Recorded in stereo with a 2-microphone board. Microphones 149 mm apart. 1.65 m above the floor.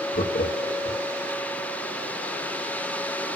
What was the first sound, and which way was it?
Laughter, 80° left.